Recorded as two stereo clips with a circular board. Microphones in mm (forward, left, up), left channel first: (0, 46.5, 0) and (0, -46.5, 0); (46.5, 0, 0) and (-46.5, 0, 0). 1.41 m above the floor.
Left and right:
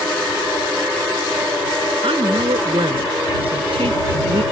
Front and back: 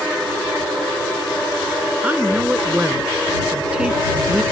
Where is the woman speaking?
105° right; by 4.4 s 100° right.